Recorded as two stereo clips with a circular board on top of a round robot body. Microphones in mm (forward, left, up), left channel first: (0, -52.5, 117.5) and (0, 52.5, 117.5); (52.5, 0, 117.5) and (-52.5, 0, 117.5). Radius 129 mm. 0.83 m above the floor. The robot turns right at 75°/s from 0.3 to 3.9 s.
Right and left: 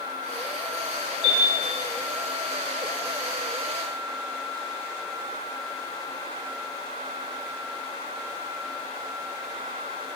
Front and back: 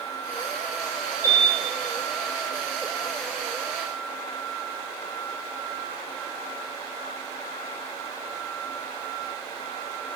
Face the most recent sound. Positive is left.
turn(degrees=135)